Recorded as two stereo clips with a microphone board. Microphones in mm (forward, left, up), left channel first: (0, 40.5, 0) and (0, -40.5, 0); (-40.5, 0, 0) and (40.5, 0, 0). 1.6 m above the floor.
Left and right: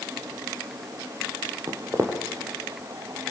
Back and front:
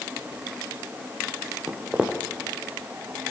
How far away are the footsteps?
About 1.9 m.